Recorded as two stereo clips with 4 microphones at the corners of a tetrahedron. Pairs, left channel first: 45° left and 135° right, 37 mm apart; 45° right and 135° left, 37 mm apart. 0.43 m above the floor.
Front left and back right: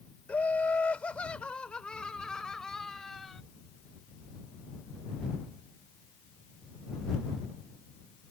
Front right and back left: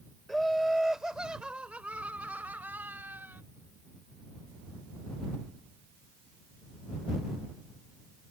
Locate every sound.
0.3 s laughter: 40° left; by 3.4 s 125° left